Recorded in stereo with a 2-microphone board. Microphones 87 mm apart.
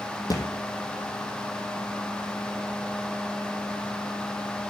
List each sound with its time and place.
0.3 s a thud: 45° left (ahead or behind), 2.5 m